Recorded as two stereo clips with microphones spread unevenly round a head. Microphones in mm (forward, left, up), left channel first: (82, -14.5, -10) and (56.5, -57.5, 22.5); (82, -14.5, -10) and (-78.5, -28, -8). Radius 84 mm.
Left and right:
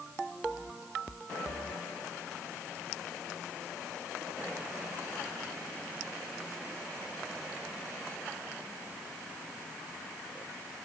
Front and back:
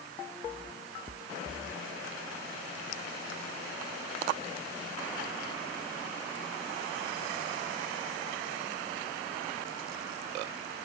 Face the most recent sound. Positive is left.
No sound to turn to.